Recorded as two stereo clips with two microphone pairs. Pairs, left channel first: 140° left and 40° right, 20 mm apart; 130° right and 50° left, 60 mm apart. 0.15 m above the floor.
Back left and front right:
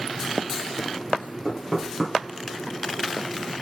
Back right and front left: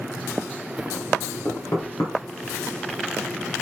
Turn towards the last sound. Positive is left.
turn(degrees=-130)